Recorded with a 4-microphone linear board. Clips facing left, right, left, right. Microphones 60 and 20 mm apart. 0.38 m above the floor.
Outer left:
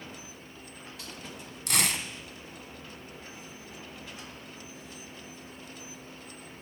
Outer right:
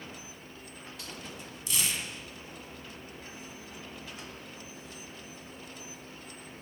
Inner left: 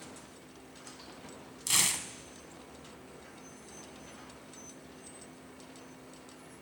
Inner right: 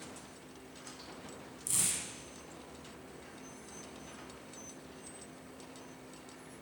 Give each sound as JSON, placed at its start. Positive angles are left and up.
{"t": 1.7, "sound": "tearing paper", "side_deg": 70, "distance_m": 1.1}